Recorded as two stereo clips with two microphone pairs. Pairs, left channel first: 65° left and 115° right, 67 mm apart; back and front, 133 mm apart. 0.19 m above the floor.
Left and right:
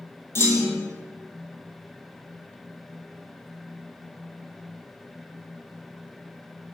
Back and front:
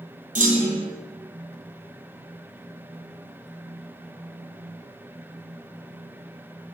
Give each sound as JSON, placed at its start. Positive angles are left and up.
{"t": 0.3, "sound": "a clunk", "azimuth_deg": 10, "distance_m": 1.4}